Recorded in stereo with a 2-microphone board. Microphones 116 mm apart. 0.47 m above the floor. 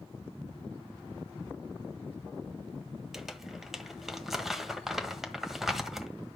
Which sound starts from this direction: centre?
Crumpling, at 3.1 s.